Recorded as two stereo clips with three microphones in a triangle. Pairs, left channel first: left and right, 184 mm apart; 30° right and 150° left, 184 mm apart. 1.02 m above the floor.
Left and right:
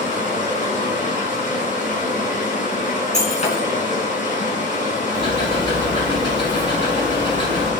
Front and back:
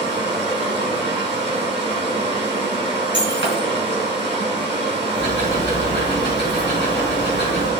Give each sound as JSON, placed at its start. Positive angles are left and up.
{"t": 0.0, "sound": "running water", "azimuth_deg": 135, "distance_m": 4.0}
{"t": 3.1, "sound": "breaking glass", "azimuth_deg": 140, "distance_m": 3.5}
{"t": 5.1, "sound": "ticking", "azimuth_deg": 150, "distance_m": 6.0}